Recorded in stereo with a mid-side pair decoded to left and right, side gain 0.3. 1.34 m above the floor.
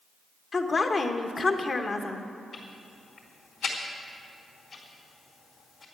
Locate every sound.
0.5 s a woman speaking: 50° left, 1.3 m
2.5 s ticking: 65° left, 3.5 m